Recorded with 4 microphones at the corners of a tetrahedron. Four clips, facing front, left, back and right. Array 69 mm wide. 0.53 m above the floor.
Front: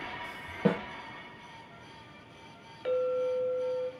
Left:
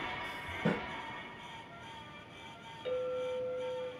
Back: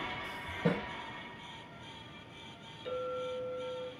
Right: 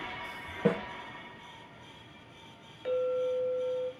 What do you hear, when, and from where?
0.7 s a snare drum: 35° right, 5 m
2.9 s a clink: 15° right, 2.5 m